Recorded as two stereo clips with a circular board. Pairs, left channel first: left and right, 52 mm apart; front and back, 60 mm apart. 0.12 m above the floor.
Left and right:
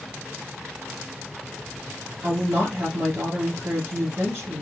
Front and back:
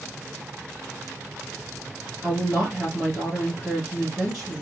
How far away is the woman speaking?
About 2.5 m.